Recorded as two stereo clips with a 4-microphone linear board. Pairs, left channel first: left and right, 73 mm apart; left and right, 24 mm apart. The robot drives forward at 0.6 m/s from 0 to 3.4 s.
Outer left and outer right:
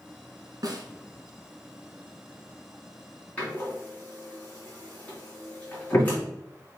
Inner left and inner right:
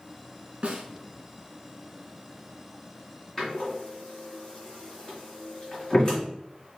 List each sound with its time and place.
0.6 s a snare drum: 60° right (ahead or behind), 1.0 m; by 0.8 s 65° right (ahead or behind), 0.9 m
3.4 s a door slam: 20° left (ahead or behind), 2 m